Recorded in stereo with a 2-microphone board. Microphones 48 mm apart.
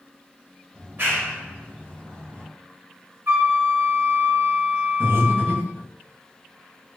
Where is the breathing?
60° right (ahead or behind), 1.7 m.